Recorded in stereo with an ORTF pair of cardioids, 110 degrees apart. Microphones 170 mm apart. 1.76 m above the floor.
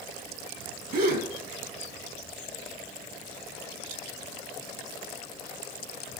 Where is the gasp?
65° right, 2 m.